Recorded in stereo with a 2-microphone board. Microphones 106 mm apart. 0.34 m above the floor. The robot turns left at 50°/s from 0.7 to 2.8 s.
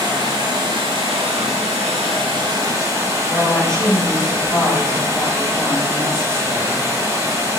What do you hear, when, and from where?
0.0 s running water: 45° right, 1.0 m; by 7.6 s 150° right, 1.0 m
3.3 s a woman speaking: 10° left (ahead or behind), 1.0 m